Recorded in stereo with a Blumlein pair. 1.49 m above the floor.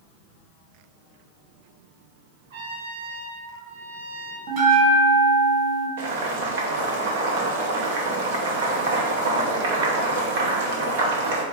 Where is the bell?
45° right, 1.6 m.